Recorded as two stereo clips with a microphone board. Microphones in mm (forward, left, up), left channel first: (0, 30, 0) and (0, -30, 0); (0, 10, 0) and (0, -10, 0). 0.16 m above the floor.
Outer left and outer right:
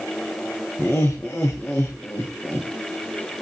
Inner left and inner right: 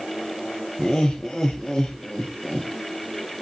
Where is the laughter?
25° left (ahead or behind), 5 m.